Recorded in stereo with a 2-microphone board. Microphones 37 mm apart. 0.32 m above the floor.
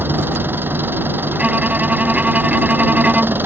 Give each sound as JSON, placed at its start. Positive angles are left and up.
{"t": 0.0, "sound": "an engine running", "side_deg": -75}
{"t": 1.3, "sound": "a violin", "side_deg": -40}